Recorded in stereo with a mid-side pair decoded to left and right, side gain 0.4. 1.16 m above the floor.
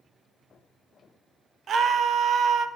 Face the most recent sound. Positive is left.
turn(degrees=-65)